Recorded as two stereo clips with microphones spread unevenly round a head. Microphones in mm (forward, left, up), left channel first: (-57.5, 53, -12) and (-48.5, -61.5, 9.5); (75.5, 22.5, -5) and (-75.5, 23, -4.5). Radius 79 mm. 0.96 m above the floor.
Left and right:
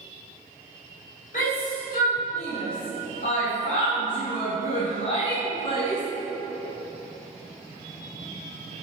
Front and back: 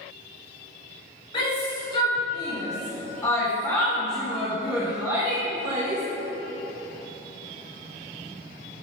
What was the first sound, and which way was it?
A shout, 55° left.